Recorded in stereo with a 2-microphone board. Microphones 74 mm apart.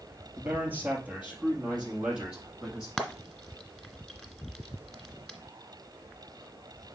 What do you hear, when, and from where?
0.4 s a man speaking: 25° right (ahead or behind), 2 m; by 2.9 s 10° right (ahead or behind), 3.5 m
3.0 s frying: 5° left (ahead or behind), 1.4 m